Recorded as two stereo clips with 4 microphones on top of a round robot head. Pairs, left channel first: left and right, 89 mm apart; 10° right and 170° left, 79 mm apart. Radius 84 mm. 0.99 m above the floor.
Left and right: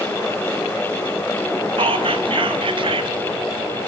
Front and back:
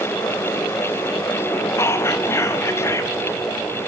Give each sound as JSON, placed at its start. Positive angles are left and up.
{"t": 1.8, "sound": "whispering", "azimuth_deg": -70, "distance_m": 1.1}